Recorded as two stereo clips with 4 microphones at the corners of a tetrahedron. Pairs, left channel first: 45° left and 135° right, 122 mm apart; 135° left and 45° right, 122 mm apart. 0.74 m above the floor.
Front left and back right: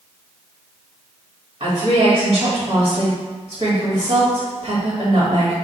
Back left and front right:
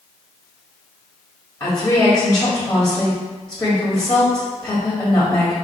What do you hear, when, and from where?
1.6 s a woman speaking: 170° right, 1.5 m